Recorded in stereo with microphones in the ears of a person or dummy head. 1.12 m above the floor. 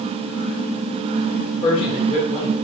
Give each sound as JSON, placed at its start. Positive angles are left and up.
{"t": 1.6, "sound": "a man speaking", "side_deg": 35, "distance_m": 0.9}